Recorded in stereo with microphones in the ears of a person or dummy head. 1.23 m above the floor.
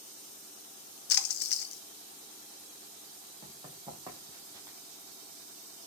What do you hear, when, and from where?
1.1 s a splash: 60° left (ahead or behind), 1.5 m
3.4 s running footsteps: 20° right (ahead or behind), 3.5 m; by 4.8 s 15° right (ahead or behind), 2 m